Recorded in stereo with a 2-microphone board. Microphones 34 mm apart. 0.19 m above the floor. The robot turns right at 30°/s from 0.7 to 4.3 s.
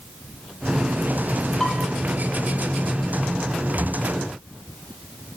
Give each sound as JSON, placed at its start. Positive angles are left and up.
{"t": 1.6, "sound": "dishes clattering", "side_deg": 20, "distance_m": 3.0}
{"t": 3.8, "sound": "a cupboard door", "side_deg": 0, "distance_m": 4.5}